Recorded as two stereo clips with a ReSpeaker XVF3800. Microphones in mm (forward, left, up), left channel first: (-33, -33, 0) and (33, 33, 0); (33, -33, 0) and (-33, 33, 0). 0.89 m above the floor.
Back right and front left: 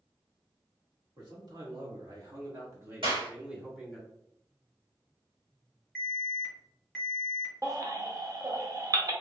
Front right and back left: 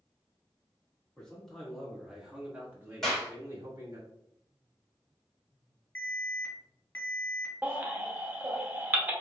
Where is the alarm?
55° right, 1.5 m.